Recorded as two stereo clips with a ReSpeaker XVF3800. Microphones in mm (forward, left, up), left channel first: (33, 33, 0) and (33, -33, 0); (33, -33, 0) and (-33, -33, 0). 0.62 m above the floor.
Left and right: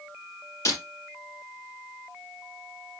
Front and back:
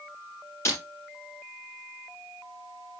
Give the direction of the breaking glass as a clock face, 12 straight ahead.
11 o'clock.